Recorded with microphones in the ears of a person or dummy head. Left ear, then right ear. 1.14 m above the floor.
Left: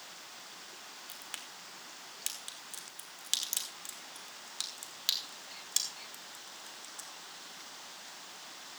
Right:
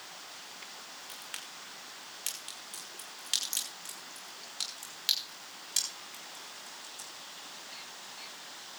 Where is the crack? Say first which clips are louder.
Right 2 dB; 5° left (ahead or behind), 1.5 m.